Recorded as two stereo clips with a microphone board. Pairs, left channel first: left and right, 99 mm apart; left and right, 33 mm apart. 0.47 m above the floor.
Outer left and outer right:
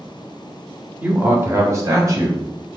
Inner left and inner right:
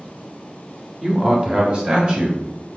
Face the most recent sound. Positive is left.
turn(degrees=-35)  # may be behind; listen again after turning